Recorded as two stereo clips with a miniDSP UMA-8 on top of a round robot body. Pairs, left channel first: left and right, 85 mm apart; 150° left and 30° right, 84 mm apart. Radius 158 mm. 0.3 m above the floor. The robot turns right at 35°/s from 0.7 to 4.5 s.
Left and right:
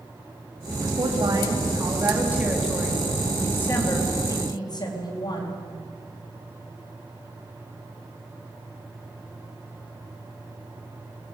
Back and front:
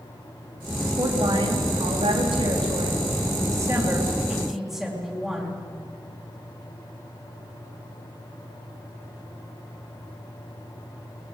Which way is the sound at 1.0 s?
65° right.